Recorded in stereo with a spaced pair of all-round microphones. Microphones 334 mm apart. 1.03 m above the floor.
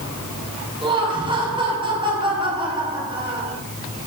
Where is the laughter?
15° right (ahead or behind), 9.5 m.